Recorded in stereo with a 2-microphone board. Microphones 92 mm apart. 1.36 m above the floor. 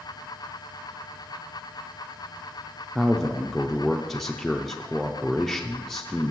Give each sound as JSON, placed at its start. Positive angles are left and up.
{"t": 3.0, "sound": "a man speaking", "side_deg": 0, "distance_m": 0.5}